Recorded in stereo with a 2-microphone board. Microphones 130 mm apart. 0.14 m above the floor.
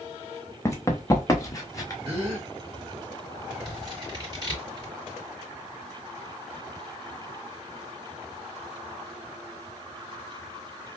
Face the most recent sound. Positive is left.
turn(degrees=-30)  # may be behind; listen again after turning